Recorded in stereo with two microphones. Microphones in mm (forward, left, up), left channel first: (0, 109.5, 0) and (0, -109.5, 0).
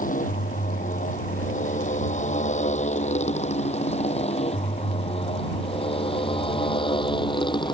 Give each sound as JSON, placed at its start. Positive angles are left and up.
{"t": 0.0, "sound": "a motorcycle", "side_deg": 40}